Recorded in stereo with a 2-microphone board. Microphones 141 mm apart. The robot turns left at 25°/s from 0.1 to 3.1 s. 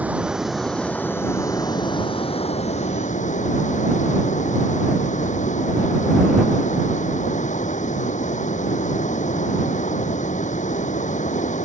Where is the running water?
170° right; by 11.7 s 115° left.